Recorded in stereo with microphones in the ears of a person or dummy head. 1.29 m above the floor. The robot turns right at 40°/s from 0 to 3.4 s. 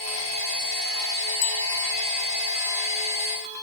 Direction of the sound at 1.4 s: 60° left (ahead or behind).